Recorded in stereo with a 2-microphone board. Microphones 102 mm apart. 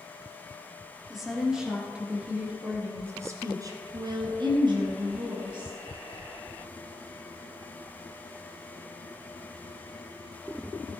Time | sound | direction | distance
1.1 | a woman speaking | centre (ahead or behind) | 3 m